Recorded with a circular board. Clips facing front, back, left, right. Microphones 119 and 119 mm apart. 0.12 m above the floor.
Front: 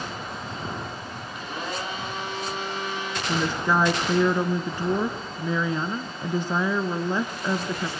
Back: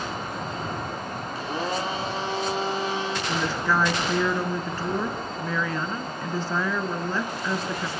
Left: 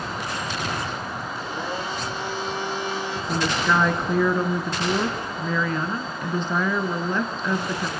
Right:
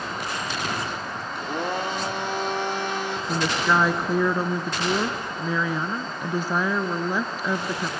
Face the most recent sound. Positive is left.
turn(degrees=-30)